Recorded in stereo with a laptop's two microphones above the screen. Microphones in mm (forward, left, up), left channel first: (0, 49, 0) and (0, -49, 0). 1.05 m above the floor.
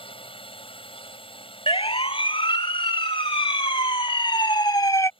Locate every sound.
0.0 s a drone: 75° left (ahead or behind)
1.7 s a siren: 85° left; by 5.1 s 30° left (ahead or behind)